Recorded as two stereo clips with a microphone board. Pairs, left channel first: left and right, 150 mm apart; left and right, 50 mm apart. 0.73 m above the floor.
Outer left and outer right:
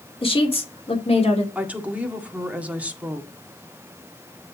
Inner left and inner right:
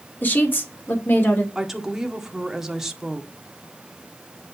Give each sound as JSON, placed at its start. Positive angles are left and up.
{"t": 0.2, "sound": "a woman speaking", "side_deg": 40, "distance_m": 2.0}
{"t": 1.6, "sound": "a woman speaking", "side_deg": -10, "distance_m": 1.6}